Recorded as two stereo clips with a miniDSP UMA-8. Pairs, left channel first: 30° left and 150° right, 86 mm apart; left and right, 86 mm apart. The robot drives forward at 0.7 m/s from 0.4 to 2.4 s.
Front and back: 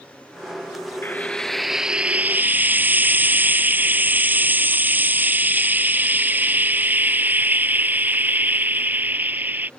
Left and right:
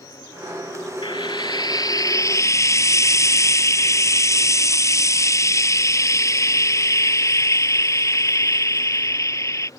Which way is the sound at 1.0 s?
95° left.